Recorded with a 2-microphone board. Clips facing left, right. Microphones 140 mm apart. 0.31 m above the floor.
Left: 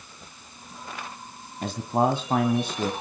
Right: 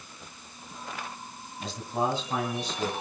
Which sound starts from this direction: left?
A man speaking, at 1.6 s.